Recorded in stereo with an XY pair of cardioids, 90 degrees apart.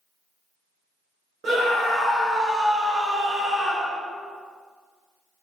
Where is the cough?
No cough in this recording.